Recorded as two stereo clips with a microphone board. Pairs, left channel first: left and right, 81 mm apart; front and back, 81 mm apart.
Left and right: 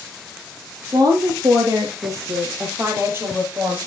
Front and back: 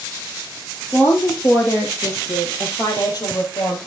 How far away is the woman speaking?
About 3.5 m.